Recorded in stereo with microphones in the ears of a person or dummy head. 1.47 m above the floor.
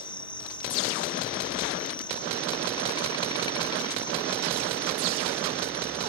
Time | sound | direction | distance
0.0 | an insect | 20° left (ahead or behind) | ?